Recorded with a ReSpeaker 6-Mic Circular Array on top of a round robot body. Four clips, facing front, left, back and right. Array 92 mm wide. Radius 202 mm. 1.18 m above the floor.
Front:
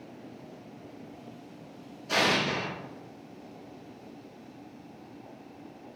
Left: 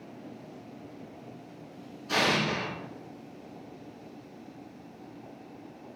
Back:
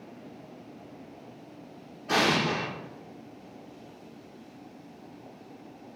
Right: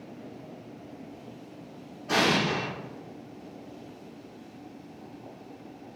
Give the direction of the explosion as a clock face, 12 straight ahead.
5 o'clock.